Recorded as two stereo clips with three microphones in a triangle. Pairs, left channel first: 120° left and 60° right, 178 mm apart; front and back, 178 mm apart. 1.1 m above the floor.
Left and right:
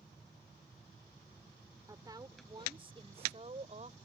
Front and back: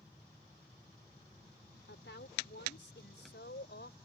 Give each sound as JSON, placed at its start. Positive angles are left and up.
{"t": 1.9, "sound": "a woman speaking", "azimuth_deg": 10}